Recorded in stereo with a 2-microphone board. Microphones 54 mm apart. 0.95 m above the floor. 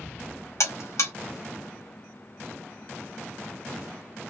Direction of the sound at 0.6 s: 75° left (ahead or behind).